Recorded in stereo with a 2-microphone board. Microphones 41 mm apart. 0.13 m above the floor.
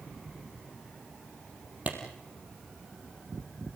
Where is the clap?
40° right (ahead or behind), 4.5 m.